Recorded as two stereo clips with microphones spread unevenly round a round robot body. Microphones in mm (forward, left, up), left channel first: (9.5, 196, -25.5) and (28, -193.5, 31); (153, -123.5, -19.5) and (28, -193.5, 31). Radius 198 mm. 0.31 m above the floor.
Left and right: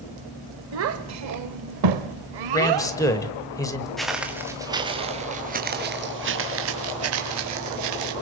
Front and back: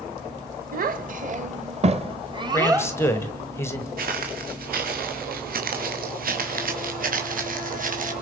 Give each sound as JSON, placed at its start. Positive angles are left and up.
{"t": 0.7, "sound": "a child speaking", "azimuth_deg": -145, "distance_m": 1.3}
{"t": 2.5, "sound": "a man speaking", "azimuth_deg": 30, "distance_m": 1.3}
{"t": 4.0, "sound": "footsteps", "azimuth_deg": -175, "distance_m": 2.0}